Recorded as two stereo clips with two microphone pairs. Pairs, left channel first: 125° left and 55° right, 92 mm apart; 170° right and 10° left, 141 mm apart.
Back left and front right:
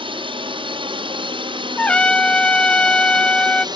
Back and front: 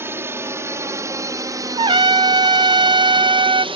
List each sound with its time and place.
0.0 s a drone: 65° right; by 3.8 s 35° right
1.8 s a trumpet: 45° left